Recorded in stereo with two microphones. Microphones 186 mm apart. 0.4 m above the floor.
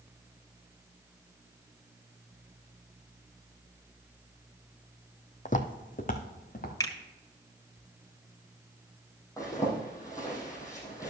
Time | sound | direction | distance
5.5 | footsteps | 45° left (ahead or behind) | 0.9 m
6.8 | a finger snap | 20° left (ahead or behind) | 1.4 m
9.4 | a zipper | 15° left (ahead or behind) | 4 m